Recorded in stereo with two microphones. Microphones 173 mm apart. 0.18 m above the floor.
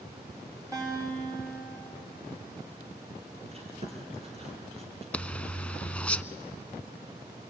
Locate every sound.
0.7 s a guitar: 20° right (ahead or behind), 7.5 m
3.5 s chewing: 35° right (ahead or behind), 4 m
5.1 s a zipper: 5° left (ahead or behind), 0.6 m